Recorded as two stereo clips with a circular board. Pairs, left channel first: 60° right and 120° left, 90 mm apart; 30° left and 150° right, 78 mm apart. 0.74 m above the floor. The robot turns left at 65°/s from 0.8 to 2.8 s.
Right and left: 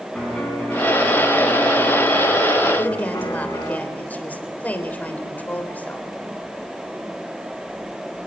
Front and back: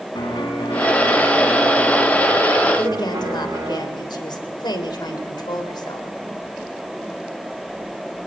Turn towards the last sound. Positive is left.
turn(degrees=10)